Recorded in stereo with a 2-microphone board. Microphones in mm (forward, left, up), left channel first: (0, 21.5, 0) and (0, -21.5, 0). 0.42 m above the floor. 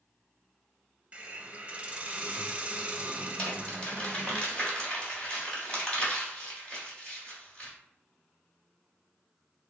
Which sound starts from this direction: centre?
Crumpling, at 3.4 s.